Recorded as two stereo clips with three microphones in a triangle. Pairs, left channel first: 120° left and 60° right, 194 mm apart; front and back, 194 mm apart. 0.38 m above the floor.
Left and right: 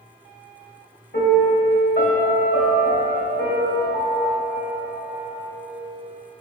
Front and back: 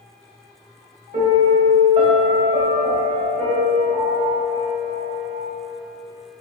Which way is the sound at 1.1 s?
125° left.